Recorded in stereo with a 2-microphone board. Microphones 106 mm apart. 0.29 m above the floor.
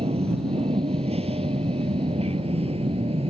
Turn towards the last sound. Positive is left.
turn(degrees=-70)  # may be behind; listen again after turning